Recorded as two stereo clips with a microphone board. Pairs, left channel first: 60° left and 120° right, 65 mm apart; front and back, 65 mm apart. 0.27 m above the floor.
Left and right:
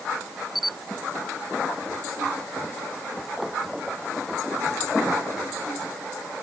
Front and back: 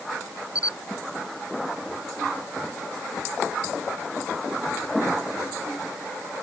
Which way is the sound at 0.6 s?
30° right.